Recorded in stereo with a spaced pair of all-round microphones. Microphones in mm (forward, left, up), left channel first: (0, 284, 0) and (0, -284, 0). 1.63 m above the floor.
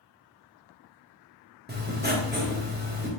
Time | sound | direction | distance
1.7 | writing | 15° right (ahead or behind) | 0.9 m